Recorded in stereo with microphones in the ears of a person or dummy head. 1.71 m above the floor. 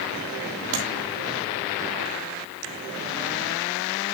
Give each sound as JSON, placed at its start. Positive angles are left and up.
{"t": 0.7, "sound": "tapping", "side_deg": -55, "distance_m": 2.5}